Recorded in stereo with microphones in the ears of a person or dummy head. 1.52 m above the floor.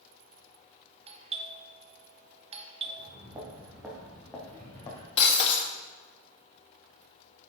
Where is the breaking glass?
45° left (ahead or behind), 1.4 m.